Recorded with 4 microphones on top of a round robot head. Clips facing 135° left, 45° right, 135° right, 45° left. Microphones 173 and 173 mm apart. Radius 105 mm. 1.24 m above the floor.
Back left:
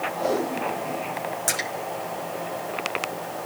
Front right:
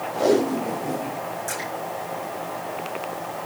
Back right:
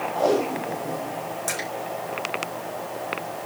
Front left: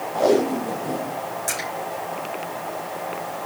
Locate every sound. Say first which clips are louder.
0.1 s tape being pulled: front right 7 dB, front left 4 dB; 30° right, 2.5 m
1.5 s a splash: even, front left 1 dB; 140° left, 4.5 m